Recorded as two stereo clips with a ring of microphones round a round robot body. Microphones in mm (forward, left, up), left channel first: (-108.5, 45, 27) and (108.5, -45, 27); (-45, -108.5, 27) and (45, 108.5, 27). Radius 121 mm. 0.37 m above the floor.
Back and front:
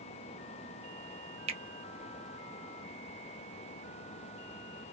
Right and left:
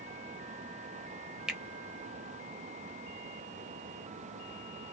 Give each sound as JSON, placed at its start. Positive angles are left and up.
{"t": 1.5, "sound": "a finger snap", "azimuth_deg": -15, "distance_m": 0.8}